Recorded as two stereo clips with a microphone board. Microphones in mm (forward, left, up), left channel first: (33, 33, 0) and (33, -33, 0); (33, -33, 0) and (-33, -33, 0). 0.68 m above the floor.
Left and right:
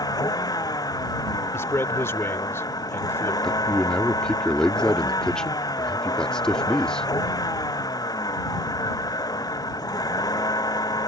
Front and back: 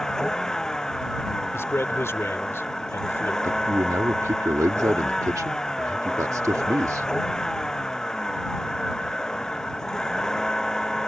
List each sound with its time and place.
0.0 s a vehicle: 80° left
1.5 s a man speaking: 45° left
3.4 s a man speaking: 165° left